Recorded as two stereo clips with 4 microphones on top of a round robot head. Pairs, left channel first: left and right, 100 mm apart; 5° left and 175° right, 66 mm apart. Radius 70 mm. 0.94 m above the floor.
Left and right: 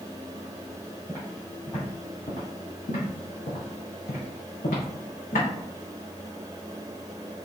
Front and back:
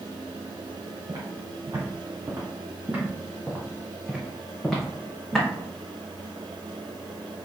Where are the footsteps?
160° left, 1.5 m; by 5.5 s 85° left, 2.5 m.